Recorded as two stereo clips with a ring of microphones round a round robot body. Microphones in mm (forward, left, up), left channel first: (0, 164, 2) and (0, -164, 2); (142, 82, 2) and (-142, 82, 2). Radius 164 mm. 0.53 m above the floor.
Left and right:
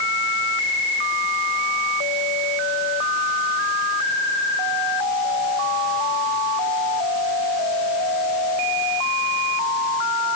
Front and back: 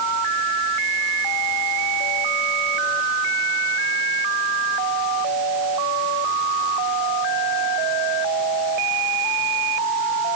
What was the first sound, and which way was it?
Only background noise.